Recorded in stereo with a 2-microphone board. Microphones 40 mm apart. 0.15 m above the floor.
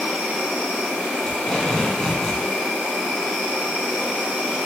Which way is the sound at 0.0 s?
5° right (ahead or behind).